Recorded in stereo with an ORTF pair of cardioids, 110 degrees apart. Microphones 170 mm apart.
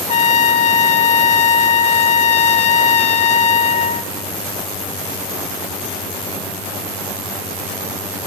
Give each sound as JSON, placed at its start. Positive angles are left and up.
{"t": 0.1, "sound": "a trumpet", "azimuth_deg": 40, "distance_m": 0.7}